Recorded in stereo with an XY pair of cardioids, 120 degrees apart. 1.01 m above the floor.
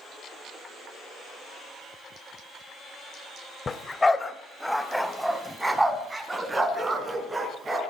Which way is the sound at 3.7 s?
30° left.